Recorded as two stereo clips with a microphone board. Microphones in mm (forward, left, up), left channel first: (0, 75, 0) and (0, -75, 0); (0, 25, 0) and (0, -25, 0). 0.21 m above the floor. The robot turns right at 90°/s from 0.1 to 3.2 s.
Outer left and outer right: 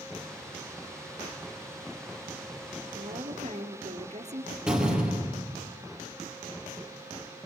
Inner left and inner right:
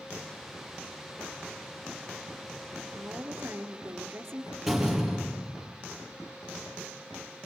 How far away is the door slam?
About 4 m.